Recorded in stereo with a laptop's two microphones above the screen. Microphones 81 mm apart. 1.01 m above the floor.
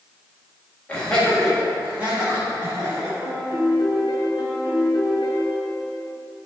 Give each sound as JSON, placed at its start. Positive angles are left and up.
{"t": 0.9, "sound": "laughter", "side_deg": 15, "distance_m": 1.9}
{"t": 3.2, "sound": "a piano", "side_deg": 75, "distance_m": 1.8}